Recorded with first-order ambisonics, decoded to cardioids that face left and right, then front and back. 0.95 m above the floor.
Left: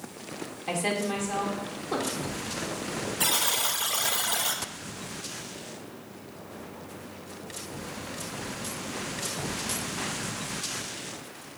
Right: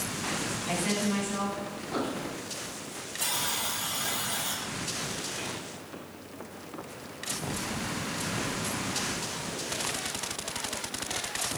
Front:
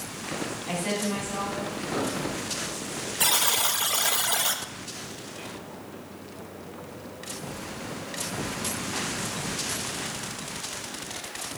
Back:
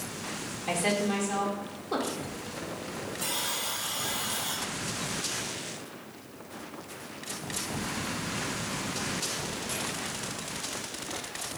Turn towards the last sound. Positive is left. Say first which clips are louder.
# left 4 dB, front 9 dB
turn(degrees=30)